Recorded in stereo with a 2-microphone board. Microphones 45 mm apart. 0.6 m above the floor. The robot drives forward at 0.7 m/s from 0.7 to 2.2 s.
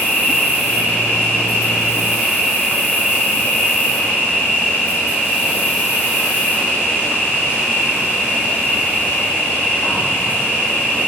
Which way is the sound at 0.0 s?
55° left (ahead or behind).